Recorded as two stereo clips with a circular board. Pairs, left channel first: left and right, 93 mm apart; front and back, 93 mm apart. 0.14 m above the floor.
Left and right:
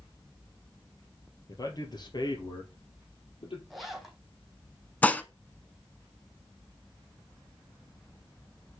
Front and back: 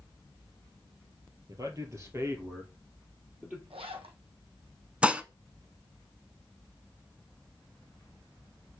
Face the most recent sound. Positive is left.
turn(degrees=130)